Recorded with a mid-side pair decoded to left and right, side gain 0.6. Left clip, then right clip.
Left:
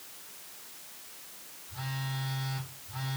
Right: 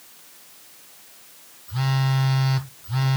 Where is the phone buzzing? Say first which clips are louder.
Right 11 dB; 60° right, 0.9 m.